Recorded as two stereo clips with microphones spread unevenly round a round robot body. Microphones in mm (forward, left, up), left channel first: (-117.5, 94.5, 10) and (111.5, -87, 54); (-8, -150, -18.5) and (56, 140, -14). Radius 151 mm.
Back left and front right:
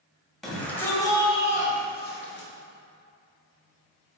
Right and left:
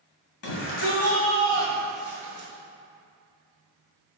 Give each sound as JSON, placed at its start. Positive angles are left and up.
{"t": 0.4, "sound": "a shout", "azimuth_deg": -135, "distance_m": 2.0}